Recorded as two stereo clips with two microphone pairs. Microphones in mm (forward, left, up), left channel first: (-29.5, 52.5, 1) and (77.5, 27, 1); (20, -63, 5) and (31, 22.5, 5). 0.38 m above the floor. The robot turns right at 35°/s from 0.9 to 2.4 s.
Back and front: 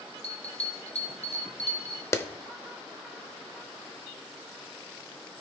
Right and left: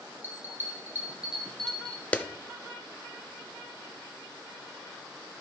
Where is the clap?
150° right, 0.7 m.